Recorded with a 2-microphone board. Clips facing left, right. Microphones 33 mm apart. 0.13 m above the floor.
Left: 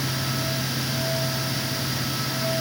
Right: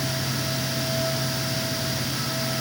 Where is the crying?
No crying in this recording.